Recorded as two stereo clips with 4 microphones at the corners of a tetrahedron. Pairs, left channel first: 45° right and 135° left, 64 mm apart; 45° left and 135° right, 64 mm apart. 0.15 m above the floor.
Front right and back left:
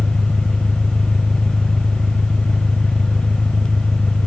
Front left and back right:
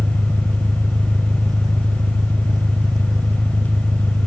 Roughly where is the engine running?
Behind right.